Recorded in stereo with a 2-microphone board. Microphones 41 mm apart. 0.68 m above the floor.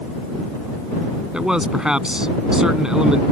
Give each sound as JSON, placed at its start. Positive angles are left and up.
{"t": 1.3, "sound": "a man speaking", "side_deg": -15}